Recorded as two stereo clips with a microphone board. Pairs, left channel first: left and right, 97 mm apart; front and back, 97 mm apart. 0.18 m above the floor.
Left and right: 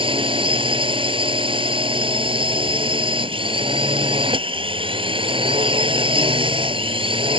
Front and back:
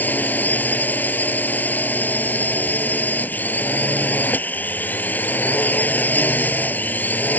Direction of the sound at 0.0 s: 70° right.